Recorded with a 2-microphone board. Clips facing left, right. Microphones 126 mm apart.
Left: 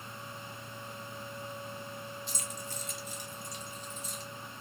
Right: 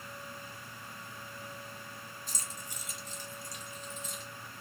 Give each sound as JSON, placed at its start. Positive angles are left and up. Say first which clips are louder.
{"t": 2.3, "sound": "keys jangling", "louder": "left 4 dB", "side_deg": -45, "distance_m": 0.7}